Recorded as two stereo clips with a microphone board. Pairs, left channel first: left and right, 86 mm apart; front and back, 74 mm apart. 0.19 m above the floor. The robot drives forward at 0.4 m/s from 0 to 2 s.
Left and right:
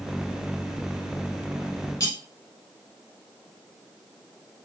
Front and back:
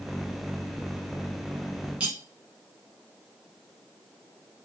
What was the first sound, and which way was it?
Cutlery clinking, 110° left.